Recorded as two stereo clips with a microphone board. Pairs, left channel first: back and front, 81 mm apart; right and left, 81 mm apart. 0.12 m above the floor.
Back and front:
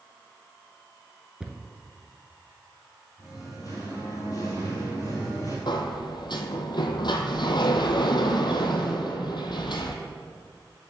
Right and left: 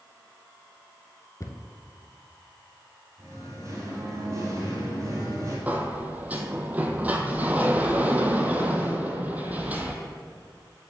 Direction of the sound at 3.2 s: 140° left.